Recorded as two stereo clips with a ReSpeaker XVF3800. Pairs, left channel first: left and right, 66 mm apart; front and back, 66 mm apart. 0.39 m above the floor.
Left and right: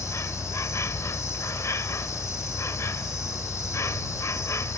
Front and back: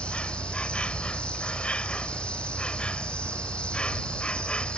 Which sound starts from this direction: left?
An insect, at 0.0 s.